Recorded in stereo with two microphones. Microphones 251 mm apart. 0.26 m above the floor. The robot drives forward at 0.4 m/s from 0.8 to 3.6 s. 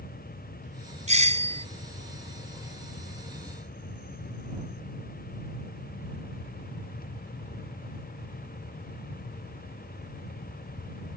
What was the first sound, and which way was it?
A doorbell, 25° right (ahead or behind).